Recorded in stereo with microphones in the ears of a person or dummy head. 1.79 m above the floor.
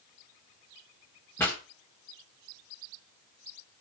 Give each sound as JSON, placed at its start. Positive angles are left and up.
{"t": 1.4, "sound": "a pop", "side_deg": 10, "distance_m": 1.6}